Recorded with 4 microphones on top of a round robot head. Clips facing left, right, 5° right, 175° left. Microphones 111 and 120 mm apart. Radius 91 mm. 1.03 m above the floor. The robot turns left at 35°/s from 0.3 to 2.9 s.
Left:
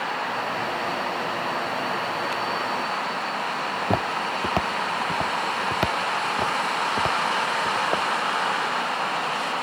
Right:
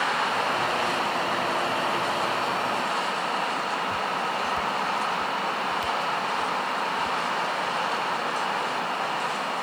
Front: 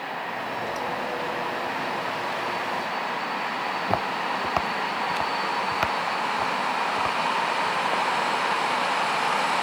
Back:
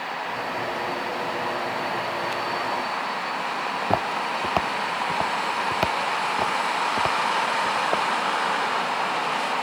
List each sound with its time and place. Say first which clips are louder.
3.7 s footsteps: left 3 dB, back 2 dB; 100° left; by 8.1 s 115° left